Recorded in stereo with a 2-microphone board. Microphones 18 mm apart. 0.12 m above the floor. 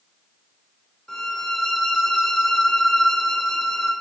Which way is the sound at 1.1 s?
20° left (ahead or behind).